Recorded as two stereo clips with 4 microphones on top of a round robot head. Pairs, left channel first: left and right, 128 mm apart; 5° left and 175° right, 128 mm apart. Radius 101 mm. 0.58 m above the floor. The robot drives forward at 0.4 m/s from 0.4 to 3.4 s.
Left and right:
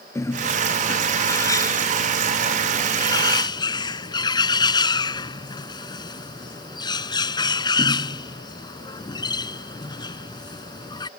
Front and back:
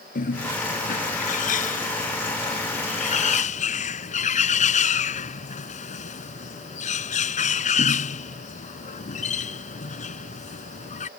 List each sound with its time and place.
0.1 s a bird: 20° left; by 11.1 s 35° left